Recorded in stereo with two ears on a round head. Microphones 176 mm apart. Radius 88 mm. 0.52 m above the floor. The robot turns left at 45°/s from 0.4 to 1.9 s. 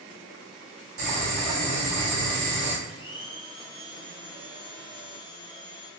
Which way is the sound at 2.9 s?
25° left (ahead or behind).